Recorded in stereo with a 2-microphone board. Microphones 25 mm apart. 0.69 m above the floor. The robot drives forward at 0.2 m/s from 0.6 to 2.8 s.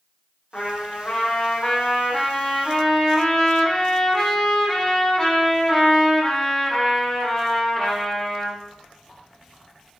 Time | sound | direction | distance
0.5 | a trumpet | 45° left (ahead or behind) | 0.9 m